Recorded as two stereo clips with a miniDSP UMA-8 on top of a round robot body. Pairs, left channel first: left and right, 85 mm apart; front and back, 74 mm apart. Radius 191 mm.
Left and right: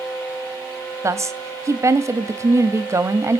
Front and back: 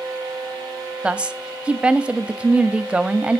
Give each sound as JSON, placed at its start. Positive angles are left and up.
{"t": 1.0, "sound": "a woman speaking", "azimuth_deg": -115, "distance_m": 1.0}